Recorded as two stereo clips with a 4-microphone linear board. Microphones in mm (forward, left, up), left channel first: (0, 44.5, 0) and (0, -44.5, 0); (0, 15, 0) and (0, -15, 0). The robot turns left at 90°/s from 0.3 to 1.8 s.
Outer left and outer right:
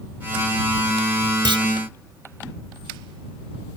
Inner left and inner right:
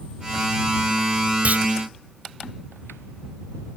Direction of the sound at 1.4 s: 60° right (ahead or behind).